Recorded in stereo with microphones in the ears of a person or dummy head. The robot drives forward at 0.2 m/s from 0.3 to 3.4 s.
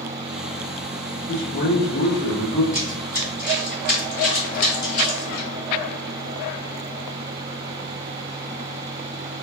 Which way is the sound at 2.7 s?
10° left (ahead or behind).